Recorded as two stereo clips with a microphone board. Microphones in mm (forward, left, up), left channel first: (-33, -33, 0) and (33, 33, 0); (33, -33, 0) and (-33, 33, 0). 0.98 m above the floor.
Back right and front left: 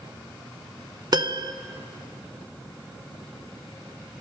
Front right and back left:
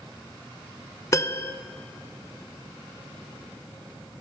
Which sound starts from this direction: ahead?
A piano, at 1.1 s.